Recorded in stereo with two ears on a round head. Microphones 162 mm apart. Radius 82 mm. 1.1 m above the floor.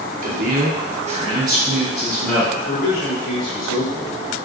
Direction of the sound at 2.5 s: 75° left (ahead or behind).